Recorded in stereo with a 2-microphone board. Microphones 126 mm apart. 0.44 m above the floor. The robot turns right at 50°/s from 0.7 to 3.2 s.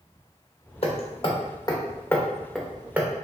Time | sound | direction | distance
0.8 | hammering | 45° left (ahead or behind) | 0.8 m